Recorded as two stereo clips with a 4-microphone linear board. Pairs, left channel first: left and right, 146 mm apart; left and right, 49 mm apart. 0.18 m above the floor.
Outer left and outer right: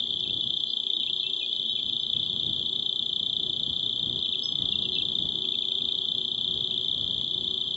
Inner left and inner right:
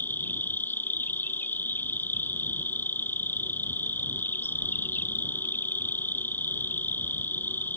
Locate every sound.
0.0 s an insect: 45° left (ahead or behind)